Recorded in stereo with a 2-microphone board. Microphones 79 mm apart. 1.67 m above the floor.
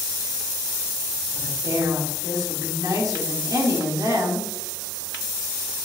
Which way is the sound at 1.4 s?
50° right (ahead or behind).